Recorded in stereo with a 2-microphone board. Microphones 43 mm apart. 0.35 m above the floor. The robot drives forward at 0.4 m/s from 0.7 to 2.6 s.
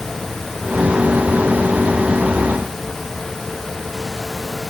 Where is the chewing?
No chewing in this recording.